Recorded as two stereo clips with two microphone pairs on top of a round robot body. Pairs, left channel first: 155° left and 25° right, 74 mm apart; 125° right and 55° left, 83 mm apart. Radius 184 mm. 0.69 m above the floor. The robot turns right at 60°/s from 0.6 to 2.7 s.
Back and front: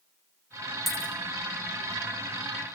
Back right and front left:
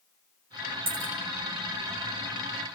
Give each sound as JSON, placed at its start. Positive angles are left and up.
{"t": 0.9, "sound": "a dropped coin", "azimuth_deg": 60, "distance_m": 3.0}